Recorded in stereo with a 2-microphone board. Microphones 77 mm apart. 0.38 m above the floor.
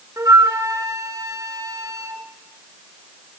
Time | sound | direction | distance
0.2 | a flute | 45° right (ahead or behind) | 2.5 m